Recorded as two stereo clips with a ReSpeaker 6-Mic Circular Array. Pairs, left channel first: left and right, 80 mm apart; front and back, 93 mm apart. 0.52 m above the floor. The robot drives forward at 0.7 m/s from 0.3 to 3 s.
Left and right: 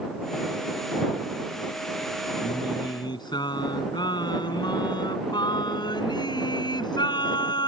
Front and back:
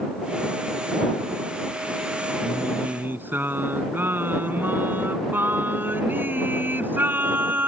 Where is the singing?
110° left; by 7.7 s 115° left.